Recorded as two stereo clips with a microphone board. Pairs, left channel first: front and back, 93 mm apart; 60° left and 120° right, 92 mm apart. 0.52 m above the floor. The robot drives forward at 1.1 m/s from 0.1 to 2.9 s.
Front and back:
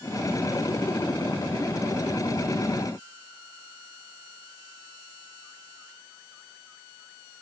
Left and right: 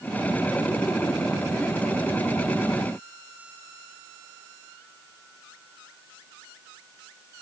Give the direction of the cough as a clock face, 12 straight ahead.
No cough in this recording.